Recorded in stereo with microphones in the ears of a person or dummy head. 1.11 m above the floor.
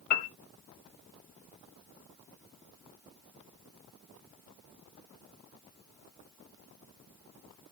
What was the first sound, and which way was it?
A piano, 55° left (ahead or behind).